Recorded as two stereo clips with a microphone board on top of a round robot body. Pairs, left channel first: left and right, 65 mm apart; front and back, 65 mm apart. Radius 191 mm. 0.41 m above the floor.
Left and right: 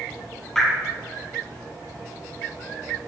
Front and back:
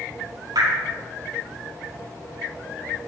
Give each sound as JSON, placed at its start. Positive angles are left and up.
{"t": 0.6, "sound": "dripping", "azimuth_deg": 175, "distance_m": 5.0}